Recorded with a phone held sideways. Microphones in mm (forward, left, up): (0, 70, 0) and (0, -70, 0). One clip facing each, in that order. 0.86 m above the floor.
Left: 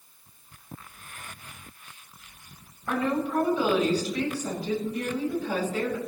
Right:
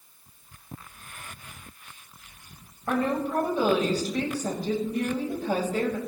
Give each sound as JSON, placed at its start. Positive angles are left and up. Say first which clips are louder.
{"t": 2.9, "sound": "a woman speaking", "louder": "right 1 dB", "side_deg": -45, "distance_m": 4.5}